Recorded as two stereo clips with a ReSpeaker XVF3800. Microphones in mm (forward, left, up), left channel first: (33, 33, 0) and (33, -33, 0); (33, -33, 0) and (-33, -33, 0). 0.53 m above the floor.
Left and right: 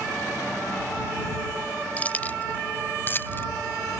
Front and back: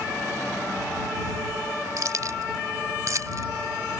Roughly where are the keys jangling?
Behind left.